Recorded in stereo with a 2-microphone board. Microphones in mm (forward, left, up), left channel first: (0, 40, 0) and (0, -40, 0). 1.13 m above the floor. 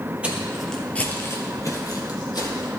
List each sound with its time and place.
0.2 s footsteps: 15° right (ahead or behind), 1.5 m; by 2.7 s 60° left (ahead or behind), 2.5 m